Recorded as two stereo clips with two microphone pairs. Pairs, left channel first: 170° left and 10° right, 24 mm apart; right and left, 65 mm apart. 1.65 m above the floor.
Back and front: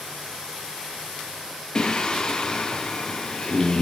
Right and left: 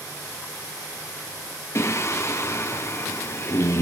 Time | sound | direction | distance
1.8 | singing | 135° right | 1.0 m